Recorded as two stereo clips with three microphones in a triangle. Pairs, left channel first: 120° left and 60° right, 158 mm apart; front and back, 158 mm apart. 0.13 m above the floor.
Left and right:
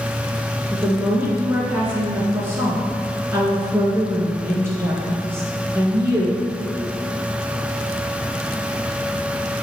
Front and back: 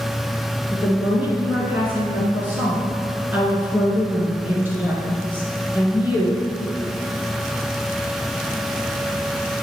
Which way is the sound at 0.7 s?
115° right.